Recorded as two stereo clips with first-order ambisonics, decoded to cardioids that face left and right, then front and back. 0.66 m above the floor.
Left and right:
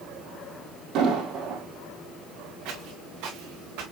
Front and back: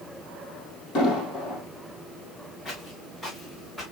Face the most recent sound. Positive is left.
turn(degrees=-75)